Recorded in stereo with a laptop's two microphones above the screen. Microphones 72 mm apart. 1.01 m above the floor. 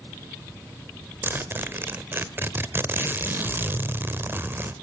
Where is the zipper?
30° right (ahead or behind), 1.1 m.